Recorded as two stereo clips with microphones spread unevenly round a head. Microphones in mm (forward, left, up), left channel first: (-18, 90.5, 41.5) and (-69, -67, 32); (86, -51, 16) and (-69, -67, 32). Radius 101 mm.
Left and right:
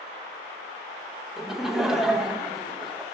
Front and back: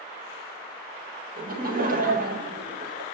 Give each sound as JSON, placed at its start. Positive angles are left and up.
{"t": 1.4, "sound": "laughter", "azimuth_deg": 165, "distance_m": 1.0}